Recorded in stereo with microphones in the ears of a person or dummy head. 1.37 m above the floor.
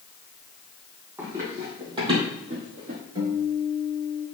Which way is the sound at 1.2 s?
20° right (ahead or behind).